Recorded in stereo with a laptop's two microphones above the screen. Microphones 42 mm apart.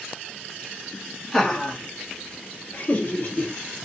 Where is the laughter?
10° left (ahead or behind), 1.4 m; by 3.5 s 45° left (ahead or behind), 1.0 m.